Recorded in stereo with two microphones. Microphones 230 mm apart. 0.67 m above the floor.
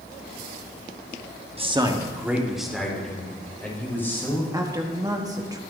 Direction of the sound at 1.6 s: 25° right (ahead or behind).